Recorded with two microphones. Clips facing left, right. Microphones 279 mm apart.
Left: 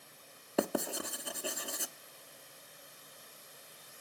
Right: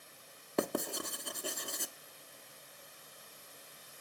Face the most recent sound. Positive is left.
turn(degrees=5)  # may be behind; listen again after turning